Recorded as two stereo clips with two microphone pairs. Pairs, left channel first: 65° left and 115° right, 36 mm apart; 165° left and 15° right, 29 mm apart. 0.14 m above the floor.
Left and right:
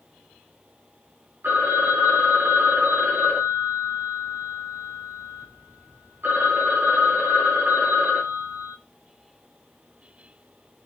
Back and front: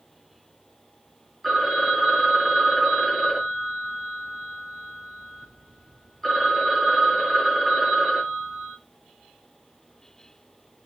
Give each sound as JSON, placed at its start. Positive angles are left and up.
{"t": 1.4, "sound": "a phone ringing", "azimuth_deg": -115, "distance_m": 5.0}